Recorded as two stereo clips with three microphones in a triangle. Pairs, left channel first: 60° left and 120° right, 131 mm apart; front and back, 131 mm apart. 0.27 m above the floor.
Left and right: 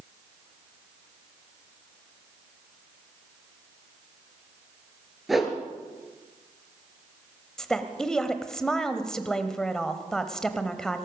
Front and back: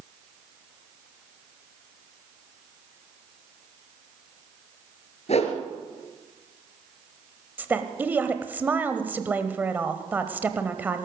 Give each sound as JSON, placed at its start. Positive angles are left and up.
{"t": 5.3, "sound": "a whoosh", "azimuth_deg": -30, "distance_m": 2.5}
{"t": 7.6, "sound": "a woman speaking", "azimuth_deg": 135, "distance_m": 1.0}